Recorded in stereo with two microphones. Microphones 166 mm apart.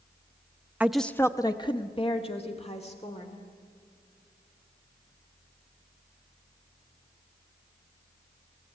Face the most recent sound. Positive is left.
turn(degrees=40)  # may be behind; listen again after turning